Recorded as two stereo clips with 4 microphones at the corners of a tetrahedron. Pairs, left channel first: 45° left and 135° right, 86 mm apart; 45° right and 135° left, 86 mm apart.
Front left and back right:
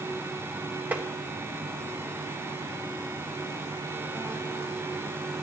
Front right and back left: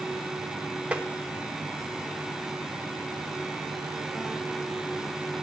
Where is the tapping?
165° right, 0.9 m.